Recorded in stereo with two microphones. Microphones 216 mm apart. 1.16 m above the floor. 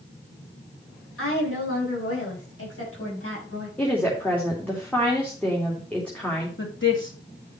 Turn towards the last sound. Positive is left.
turn(degrees=65)  # may be behind; listen again after turning